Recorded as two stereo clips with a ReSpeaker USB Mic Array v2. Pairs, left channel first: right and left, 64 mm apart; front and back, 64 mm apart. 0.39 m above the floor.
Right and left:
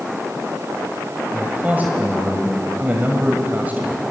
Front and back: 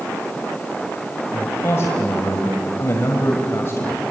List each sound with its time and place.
1.3 s a man speaking: 30° left, 1.6 m